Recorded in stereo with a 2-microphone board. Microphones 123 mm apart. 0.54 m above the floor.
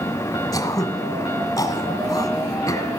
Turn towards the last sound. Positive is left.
turn(degrees=30)  # may be behind; listen again after turning